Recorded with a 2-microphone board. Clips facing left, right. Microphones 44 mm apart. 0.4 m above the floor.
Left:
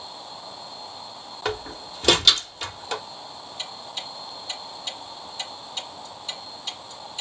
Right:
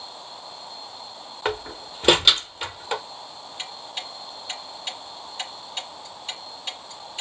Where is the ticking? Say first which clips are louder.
Right 1 dB; 40° right (ahead or behind), 3.5 m.